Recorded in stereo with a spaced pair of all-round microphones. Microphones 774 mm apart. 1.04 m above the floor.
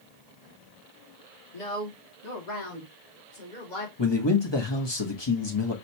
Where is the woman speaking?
50° left (ahead or behind), 3 m; by 3.9 s 75° left (ahead or behind), 2.5 m.